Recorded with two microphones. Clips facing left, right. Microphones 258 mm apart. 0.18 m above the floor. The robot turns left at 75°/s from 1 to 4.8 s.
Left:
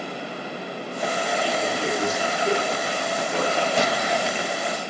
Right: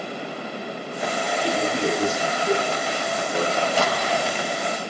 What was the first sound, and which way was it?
A man speaking, 130° right.